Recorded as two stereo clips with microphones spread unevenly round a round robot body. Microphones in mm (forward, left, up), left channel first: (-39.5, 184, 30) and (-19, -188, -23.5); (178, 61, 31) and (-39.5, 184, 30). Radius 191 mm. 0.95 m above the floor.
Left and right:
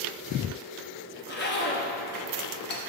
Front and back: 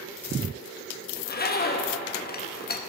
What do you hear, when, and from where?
1.2 s a zipper: 25° left, 0.9 m